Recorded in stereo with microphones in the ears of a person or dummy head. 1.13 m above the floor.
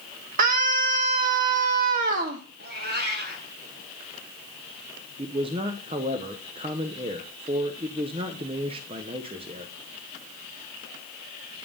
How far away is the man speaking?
About 0.6 m.